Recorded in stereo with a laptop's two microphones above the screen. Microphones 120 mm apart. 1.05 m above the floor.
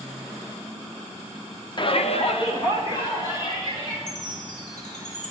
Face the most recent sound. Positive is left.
turn(degrees=80)